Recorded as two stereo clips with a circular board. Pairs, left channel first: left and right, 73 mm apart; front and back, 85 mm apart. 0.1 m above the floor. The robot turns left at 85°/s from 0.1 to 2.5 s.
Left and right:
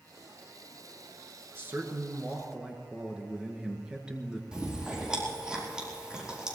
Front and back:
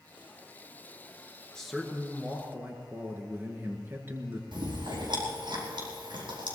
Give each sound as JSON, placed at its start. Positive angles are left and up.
{"t": 1.6, "sound": "a man speaking", "azimuth_deg": -75, "distance_m": 1.7}
{"t": 4.5, "sound": "chewing", "azimuth_deg": -170, "distance_m": 4.5}